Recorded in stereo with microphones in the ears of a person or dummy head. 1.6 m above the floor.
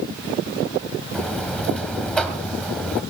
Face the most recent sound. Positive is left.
turn(degrees=10)  # may be behind; listen again after turning